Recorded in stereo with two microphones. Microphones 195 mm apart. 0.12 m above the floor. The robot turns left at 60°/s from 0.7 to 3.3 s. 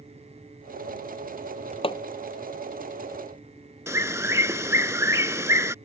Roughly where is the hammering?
Left.